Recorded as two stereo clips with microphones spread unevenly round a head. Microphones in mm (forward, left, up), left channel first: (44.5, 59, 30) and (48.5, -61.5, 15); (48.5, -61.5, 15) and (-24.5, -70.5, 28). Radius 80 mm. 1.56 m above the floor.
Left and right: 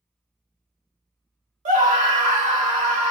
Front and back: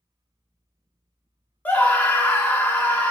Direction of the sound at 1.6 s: 60° right.